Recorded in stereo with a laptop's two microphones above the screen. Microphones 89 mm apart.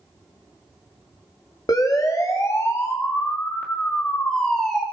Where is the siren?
40° left (ahead or behind), 2.5 m; by 4.8 s 5° left (ahead or behind), 3 m.